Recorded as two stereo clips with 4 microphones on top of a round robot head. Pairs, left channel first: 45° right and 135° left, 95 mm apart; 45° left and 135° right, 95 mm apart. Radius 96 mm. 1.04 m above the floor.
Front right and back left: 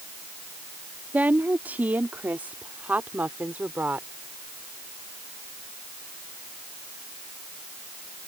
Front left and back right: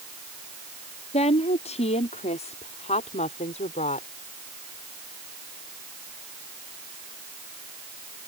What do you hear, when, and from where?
1.1 s a woman speaking: 60° left